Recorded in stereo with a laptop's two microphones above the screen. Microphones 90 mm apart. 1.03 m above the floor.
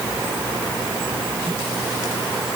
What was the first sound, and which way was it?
Only background noise.